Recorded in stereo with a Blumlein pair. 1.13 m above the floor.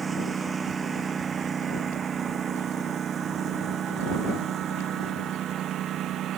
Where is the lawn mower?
15° right; by 6.4 s 30° right.